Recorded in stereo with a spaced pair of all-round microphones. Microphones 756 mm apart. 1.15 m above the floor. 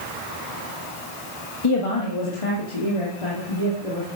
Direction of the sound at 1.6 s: 40° left (ahead or behind).